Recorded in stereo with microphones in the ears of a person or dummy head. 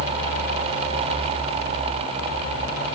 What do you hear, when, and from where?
Only background noise.